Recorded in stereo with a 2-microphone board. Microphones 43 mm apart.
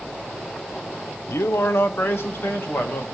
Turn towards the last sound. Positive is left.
turn(degrees=60)  # may be behind; listen again after turning